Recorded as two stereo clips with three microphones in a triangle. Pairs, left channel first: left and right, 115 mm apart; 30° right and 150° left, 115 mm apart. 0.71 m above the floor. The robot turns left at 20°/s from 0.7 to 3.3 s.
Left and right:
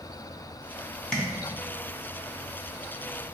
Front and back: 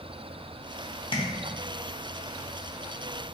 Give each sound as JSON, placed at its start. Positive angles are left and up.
{"t": 1.1, "sound": "tapping", "azimuth_deg": 5, "distance_m": 0.7}